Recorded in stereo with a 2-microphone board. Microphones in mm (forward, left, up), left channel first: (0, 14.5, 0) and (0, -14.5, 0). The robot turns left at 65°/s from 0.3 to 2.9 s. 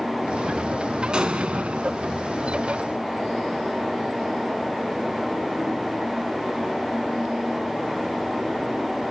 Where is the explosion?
35° right, 1.1 m; by 2.0 s 95° right, 1.1 m.